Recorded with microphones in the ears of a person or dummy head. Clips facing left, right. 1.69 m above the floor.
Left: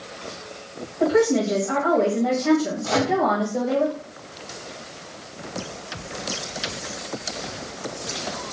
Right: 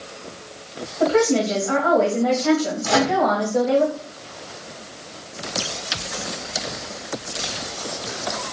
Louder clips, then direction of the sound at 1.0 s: Right 1 dB; 35° right (ahead or behind).